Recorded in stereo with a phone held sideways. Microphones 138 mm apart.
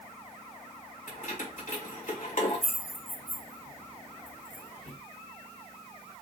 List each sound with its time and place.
1.1 s keys jangling: 65° left (ahead or behind), 1.7 m